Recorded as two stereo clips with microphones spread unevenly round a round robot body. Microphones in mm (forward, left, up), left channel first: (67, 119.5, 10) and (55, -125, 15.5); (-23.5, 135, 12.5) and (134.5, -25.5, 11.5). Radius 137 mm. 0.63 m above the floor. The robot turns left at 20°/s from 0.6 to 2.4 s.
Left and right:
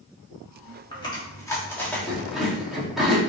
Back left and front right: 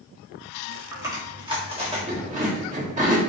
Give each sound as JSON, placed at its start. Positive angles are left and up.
{"t": 0.9, "sound": "chewing", "azimuth_deg": 25, "distance_m": 1.4}